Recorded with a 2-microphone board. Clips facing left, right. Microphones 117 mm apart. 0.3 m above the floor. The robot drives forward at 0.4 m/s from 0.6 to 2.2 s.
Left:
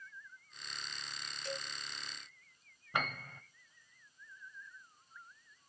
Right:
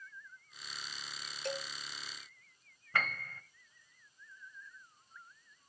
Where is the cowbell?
60° right (ahead or behind), 0.7 m.